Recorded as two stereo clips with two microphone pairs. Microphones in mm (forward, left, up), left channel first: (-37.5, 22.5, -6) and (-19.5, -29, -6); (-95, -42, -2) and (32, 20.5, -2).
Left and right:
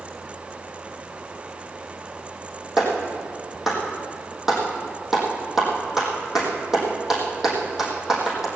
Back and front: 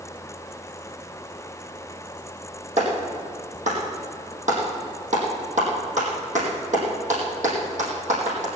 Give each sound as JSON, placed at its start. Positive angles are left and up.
{"t": 2.8, "sound": "a clap", "azimuth_deg": 15, "distance_m": 4.5}